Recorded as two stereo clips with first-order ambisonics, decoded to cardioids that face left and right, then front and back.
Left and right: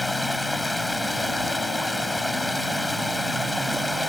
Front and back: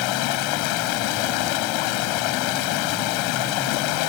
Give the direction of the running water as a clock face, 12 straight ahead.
12 o'clock.